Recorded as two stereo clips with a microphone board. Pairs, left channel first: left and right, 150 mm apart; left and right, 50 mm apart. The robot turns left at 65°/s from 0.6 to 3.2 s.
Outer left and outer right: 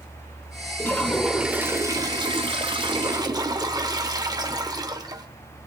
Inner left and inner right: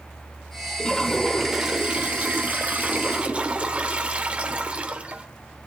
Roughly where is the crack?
I don't hear a crack.